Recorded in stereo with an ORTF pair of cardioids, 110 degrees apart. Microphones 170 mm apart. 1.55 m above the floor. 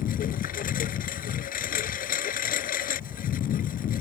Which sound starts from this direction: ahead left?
A lawn mower, at 0.0 s.